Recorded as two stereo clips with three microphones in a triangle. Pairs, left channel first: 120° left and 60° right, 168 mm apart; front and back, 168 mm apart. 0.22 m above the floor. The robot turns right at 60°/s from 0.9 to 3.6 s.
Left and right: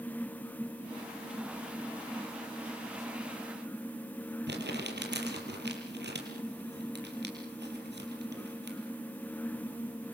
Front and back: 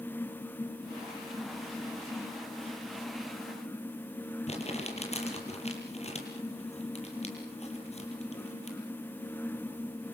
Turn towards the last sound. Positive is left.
turn(degrees=-50)